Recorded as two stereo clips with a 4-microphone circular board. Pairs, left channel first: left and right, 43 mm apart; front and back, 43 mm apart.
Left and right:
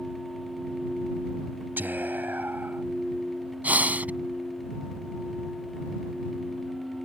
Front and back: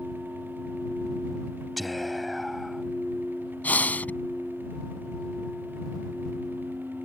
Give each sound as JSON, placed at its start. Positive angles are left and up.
{"t": 1.8, "sound": "whispering", "azimuth_deg": -90}
{"t": 3.6, "sound": "breathing", "azimuth_deg": -45}